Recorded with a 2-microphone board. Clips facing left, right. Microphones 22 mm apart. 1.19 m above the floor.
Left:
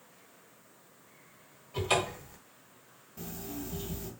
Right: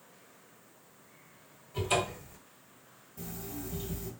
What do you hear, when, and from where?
1.7 s a cupboard door: 50° left (ahead or behind), 1.2 m
3.2 s an alarm clock: 35° left (ahead or behind), 1.0 m